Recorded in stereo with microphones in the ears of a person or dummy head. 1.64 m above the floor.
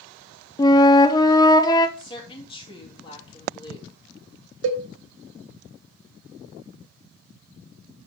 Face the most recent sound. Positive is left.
turn(degrees=-65)  # may be behind; listen again after turning